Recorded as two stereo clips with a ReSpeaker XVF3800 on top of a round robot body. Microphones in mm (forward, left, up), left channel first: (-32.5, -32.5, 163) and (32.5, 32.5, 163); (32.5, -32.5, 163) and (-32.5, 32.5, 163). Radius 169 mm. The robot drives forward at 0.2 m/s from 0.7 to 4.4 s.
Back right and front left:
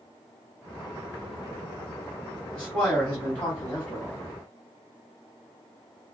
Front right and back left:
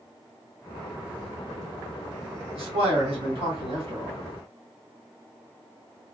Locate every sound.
2.5 s a man speaking: 135° left, 2.5 m; by 4.2 s 140° left, 2.5 m